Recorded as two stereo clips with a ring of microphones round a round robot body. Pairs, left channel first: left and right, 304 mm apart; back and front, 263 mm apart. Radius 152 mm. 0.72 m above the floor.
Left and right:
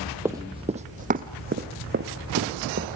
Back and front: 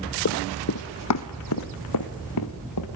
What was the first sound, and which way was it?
Running footsteps, 170° right.